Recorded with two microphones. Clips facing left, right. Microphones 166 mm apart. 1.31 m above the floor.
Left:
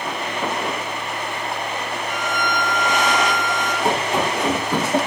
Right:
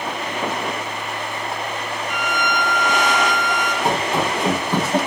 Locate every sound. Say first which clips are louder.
2.1 s a violin: right 1 dB; 20° left (ahead or behind), 6.5 m
3.8 s running footsteps: even; 10° left (ahead or behind), 9 m